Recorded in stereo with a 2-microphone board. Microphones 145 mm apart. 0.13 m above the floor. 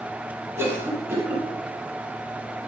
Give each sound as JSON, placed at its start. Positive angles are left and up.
{"t": 0.6, "sound": "a cough", "side_deg": -15, "distance_m": 4.0}